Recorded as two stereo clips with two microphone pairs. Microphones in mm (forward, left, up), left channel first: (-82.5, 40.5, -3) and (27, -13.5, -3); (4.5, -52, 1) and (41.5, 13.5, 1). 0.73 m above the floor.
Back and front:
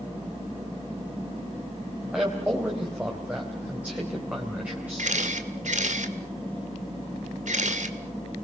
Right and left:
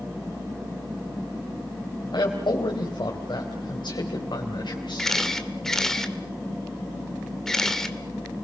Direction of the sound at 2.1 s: 105° right.